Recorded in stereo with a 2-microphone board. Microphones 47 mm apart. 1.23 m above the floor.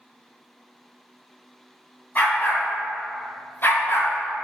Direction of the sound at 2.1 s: 40° left (ahead or behind).